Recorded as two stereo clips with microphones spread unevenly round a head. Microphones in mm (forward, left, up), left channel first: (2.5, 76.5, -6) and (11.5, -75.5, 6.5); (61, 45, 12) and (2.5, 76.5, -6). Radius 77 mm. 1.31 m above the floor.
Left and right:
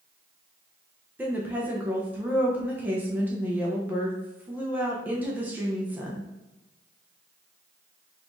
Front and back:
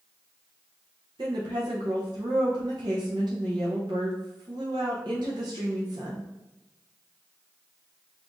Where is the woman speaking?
165° right, 0.8 m.